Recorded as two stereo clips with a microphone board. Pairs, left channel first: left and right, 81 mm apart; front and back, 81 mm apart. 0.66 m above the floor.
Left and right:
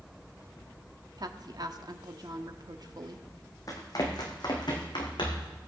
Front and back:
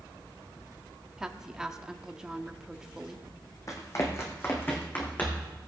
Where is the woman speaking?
100° right, 0.9 m.